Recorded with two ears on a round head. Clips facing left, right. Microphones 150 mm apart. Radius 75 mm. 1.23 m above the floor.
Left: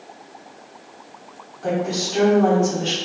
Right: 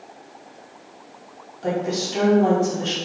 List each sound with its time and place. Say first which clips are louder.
1.6 s a woman speaking: left 1 dB; 20° right (ahead or behind), 1.2 m